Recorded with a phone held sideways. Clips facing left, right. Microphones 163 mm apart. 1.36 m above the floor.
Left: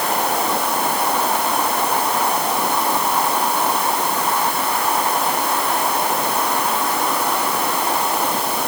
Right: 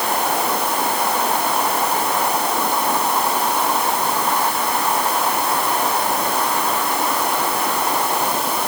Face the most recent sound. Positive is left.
No sound to turn to.